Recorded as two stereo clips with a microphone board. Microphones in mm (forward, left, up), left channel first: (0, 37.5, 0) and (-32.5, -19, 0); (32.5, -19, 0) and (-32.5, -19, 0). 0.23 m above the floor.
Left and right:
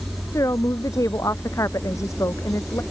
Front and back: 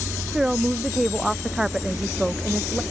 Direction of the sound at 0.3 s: 95° left.